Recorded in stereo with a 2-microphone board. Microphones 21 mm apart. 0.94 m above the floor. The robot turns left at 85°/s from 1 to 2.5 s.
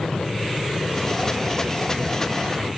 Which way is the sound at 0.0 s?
75° left.